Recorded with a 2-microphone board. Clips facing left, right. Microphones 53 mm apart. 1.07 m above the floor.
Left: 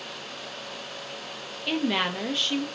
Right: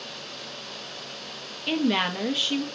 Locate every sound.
1.7 s a woman speaking: centre (ahead or behind), 0.5 m